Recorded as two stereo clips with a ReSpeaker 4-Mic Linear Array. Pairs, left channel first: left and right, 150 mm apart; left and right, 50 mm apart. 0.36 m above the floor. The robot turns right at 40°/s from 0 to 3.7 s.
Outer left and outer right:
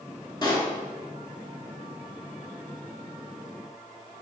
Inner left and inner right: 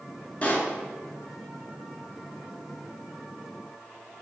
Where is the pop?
30° left (ahead or behind), 0.7 m; by 0.7 s 40° left (ahead or behind), 0.7 m.